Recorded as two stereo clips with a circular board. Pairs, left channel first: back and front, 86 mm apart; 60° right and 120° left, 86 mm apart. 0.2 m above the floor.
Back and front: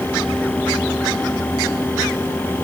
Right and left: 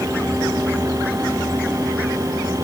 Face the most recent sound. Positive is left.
No sound to turn to.